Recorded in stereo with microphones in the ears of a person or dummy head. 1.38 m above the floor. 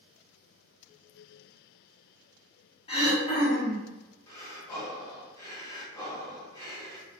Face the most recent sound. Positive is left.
turn(degrees=20)  # may be behind; listen again after turning